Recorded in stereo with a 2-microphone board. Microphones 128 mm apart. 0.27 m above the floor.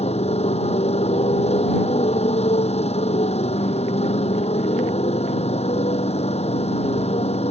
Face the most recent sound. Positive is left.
turn(degrees=55)  # may be behind; listen again after turning